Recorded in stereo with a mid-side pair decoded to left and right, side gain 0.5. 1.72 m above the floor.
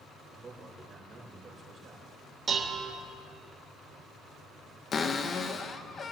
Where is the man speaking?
35° right, 6.5 m.